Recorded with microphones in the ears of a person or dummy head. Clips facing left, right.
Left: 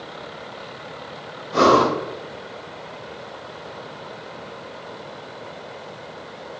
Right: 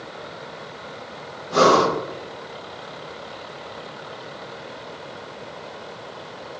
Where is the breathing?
75° right (ahead or behind), 1.6 m.